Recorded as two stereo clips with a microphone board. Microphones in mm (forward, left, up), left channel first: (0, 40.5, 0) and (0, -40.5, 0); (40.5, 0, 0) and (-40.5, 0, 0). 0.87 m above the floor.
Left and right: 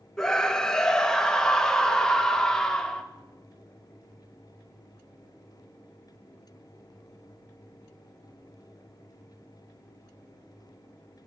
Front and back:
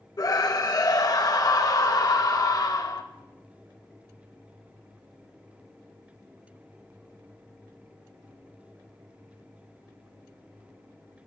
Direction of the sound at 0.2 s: 10° left.